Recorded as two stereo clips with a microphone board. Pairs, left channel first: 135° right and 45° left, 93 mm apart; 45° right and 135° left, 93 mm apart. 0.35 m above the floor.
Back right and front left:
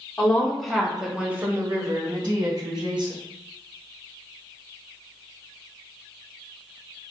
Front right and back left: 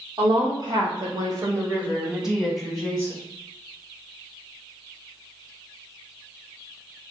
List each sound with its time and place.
0.2 s a woman speaking: 150° left, 1.9 m; by 3.1 s 30° left, 2 m